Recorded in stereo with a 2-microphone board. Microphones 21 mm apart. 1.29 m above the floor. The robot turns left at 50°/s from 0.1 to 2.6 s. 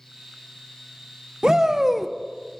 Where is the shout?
145° right, 0.7 m; by 2.1 s straight behind, 0.7 m.